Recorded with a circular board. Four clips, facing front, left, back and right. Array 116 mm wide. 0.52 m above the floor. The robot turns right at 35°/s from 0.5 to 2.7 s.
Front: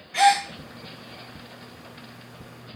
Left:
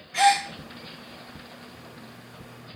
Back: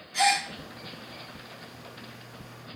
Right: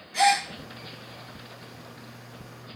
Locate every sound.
0.1 s a gasp: 20° left, 0.6 m